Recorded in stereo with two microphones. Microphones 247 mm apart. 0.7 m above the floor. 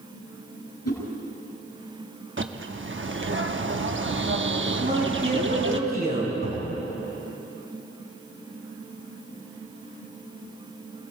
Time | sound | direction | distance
0.8 | a whoosh | 80° left | 5.5 m
2.4 | a bird | 50° right (ahead or behind) | 1.0 m
4.8 | a man speaking | 35° right (ahead or behind) | 7.5 m
6.4 | a cupboard door | 75° right (ahead or behind) | 6.5 m